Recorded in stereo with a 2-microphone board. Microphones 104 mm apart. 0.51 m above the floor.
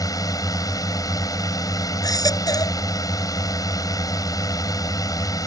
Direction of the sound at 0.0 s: 35° left (ahead or behind).